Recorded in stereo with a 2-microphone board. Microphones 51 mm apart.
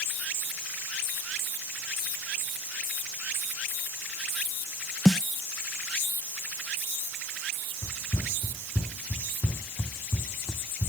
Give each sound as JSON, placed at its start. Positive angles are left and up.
{"t": 5.0, "sound": "a snare drum", "side_deg": 5}
{"t": 7.8, "sound": "running footsteps", "side_deg": 50}